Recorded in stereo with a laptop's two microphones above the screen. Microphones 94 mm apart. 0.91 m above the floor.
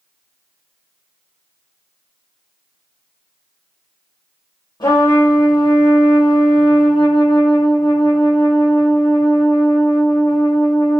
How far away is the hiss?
No hiss in this recording.